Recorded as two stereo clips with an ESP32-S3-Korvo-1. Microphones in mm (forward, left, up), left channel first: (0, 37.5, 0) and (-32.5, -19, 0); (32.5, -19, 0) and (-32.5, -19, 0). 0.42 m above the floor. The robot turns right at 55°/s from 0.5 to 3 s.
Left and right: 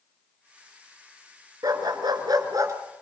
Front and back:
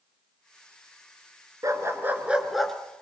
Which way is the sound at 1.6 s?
145° right.